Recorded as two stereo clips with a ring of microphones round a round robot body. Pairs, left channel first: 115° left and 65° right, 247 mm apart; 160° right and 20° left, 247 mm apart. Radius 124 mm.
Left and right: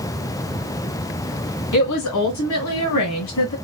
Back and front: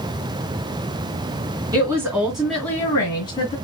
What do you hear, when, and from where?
1.7 s a woman speaking: 100° left, 2.5 m; by 3.5 s 135° left, 2 m